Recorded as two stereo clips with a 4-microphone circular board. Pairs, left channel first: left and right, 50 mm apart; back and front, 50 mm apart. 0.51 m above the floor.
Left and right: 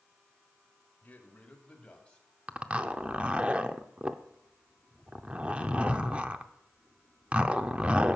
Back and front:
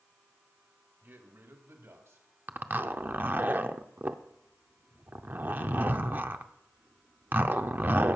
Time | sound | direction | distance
1.0 | a man speaking | 40° left | 1.8 m
2.5 | a zipper | 30° right | 0.6 m